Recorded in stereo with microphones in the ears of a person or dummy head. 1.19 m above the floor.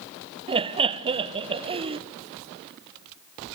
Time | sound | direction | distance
0.5 | laughter | 30° right (ahead or behind) | 0.6 m